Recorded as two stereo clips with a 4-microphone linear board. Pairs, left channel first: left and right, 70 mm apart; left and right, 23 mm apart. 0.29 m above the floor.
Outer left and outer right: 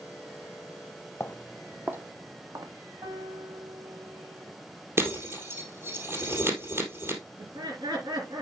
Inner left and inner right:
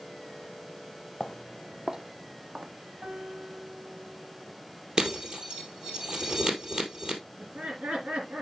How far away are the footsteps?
About 0.6 m.